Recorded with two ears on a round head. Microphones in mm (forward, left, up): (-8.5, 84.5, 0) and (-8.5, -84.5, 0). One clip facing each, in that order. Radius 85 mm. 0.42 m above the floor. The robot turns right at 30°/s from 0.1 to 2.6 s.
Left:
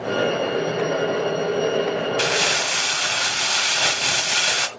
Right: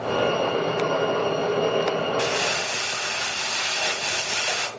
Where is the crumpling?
75° left (ahead or behind), 1.6 m; by 4.7 s 70° left (ahead or behind), 1.6 m.